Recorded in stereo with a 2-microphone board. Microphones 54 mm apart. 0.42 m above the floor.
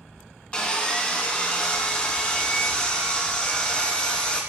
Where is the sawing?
20° left (ahead or behind), 1.0 m.